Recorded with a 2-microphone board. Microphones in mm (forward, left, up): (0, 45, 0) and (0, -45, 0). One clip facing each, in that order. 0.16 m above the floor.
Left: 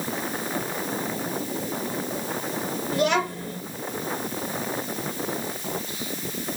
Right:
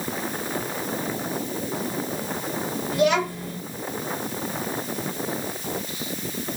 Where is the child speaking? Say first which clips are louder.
Right 2 dB; 35° left (ahead or behind), 1.8 m.